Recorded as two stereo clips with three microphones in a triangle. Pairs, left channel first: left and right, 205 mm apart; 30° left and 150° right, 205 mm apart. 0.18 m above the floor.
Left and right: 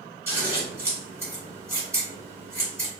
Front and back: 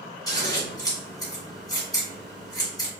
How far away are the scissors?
About 1.5 m.